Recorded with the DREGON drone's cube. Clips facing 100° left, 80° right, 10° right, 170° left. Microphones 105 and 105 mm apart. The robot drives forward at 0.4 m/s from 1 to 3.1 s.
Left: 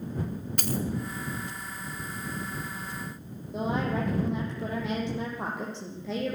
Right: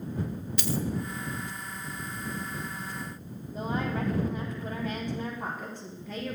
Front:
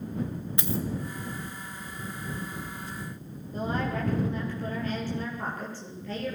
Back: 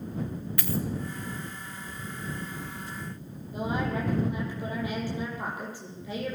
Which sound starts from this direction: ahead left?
A dropped coin, at 0.6 s.